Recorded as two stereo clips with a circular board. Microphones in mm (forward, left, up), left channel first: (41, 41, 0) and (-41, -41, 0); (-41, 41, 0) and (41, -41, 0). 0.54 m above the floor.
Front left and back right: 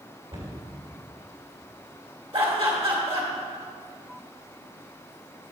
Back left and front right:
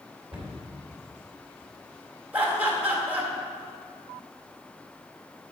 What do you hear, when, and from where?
0.3 s a cupboard door: 125° right, 2.5 m
2.3 s laughter: 115° right, 1.9 m